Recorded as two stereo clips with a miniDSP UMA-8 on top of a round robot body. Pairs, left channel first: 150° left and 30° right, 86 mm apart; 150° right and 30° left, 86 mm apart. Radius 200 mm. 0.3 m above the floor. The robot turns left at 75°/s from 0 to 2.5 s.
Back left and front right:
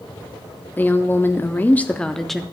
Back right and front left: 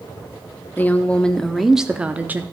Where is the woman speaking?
175° right, 0.9 m; by 2.4 s 55° left, 0.9 m.